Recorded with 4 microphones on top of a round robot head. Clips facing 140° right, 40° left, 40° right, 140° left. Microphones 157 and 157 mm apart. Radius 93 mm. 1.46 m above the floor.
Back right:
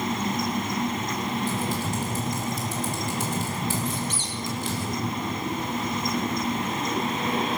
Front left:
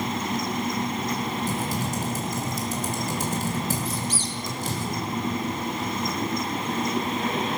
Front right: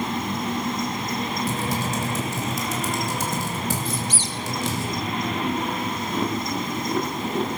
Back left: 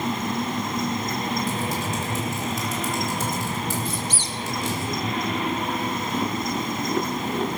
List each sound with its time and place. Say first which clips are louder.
1.5 s typing on a keyboard: even, front right 1 dB; 10° right, 3 m
3.9 s a squeak: even, front right 1 dB; 20° right, 1.2 m